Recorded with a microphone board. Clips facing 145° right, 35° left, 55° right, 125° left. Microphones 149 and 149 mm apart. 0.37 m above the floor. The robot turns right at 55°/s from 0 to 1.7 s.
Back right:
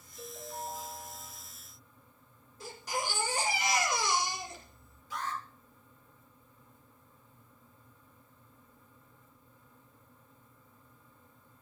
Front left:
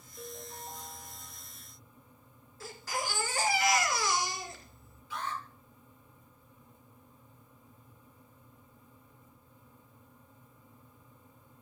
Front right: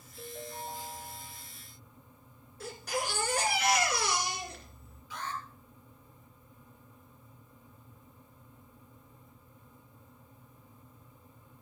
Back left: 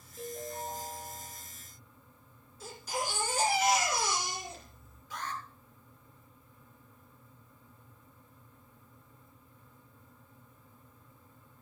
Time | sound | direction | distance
0.2 | a ringtone | 75° left | 4 m
2.6 | a baby crying | 75° right | 2.5 m
5.1 | an alarm | 170° left | 9.5 m